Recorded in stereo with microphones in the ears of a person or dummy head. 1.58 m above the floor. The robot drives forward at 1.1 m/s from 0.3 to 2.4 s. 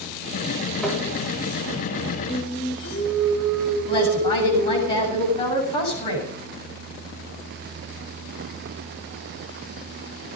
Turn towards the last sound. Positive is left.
turn(degrees=20)  # may be behind; listen again after turning